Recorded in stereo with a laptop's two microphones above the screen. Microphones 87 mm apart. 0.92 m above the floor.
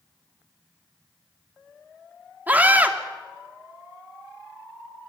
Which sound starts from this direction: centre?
A scream, at 2.5 s.